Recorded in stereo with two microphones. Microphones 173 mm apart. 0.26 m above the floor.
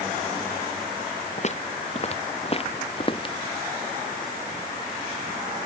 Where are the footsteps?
45° left (ahead or behind); by 3.4 s 30° left (ahead or behind).